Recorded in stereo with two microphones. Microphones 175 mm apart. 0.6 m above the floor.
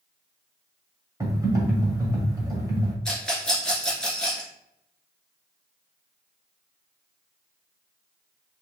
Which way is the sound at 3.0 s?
5° left (ahead or behind).